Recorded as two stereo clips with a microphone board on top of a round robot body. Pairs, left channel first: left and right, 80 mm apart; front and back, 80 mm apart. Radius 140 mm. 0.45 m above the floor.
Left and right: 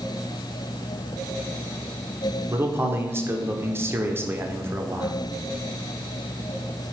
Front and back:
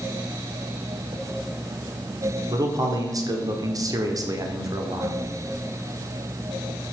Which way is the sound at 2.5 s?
145° right.